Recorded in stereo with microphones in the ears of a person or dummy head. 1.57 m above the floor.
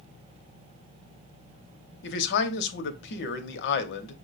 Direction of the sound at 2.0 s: 70° left (ahead or behind).